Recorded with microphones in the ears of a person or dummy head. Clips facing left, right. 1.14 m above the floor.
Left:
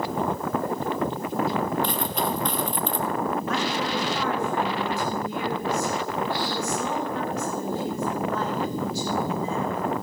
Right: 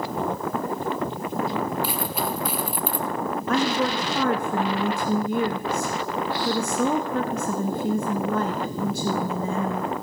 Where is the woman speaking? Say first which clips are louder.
Right 4 dB; 45° right (ahead or behind), 1.0 m.